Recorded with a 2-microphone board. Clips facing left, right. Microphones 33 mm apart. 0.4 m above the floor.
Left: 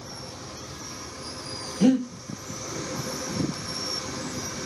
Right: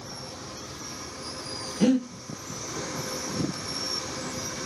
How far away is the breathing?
About 1.2 m.